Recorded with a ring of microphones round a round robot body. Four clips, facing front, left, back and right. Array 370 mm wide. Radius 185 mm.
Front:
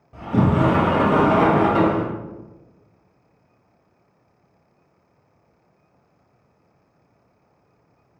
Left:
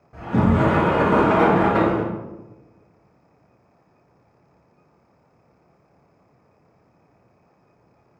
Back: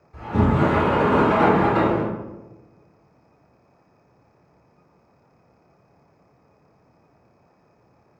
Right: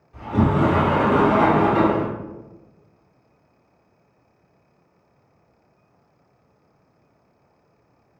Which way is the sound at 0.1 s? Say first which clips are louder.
Left 1 dB, front 1 dB; 45° left.